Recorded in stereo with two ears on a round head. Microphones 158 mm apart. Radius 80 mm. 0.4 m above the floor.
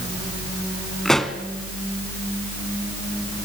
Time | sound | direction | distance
1.1 | a pop | centre (ahead or behind) | 1.4 m